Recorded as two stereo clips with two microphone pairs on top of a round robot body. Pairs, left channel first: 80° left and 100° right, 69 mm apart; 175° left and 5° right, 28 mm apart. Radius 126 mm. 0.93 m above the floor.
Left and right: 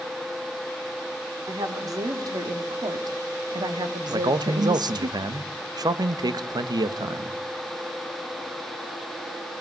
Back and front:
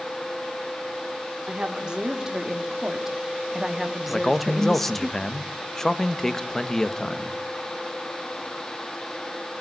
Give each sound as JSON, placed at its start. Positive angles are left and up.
{"t": 1.5, "sound": "a woman speaking", "azimuth_deg": -65, "distance_m": 3.0}
{"t": 4.1, "sound": "a man speaking", "azimuth_deg": -110, "distance_m": 1.5}